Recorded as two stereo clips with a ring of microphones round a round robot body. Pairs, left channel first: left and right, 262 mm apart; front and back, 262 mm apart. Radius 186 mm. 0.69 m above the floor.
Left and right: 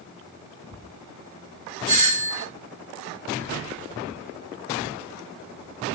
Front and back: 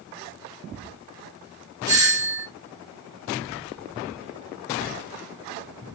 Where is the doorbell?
130° right, 3.5 m.